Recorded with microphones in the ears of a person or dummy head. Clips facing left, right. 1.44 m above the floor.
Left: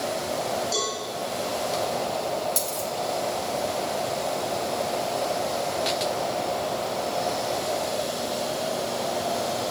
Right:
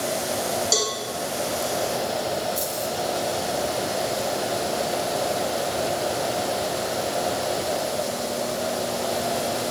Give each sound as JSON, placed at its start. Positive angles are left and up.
{"t": 0.7, "sound": "a cowbell", "side_deg": -85, "distance_m": 2.5}
{"t": 2.6, "sound": "a dropped coin", "side_deg": 65, "distance_m": 2.5}